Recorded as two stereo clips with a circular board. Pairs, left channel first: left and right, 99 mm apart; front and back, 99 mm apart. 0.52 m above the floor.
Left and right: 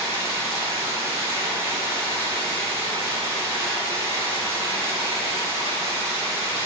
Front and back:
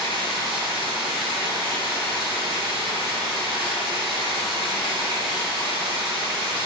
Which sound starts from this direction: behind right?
Running water, at 0.0 s.